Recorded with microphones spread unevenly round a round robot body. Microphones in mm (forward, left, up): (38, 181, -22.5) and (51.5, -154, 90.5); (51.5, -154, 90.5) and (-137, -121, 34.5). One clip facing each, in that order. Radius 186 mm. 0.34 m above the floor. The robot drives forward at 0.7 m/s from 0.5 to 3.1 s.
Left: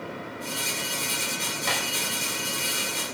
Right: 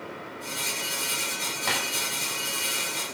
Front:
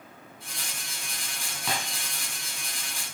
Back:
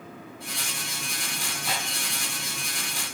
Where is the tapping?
20° left, 7.5 m.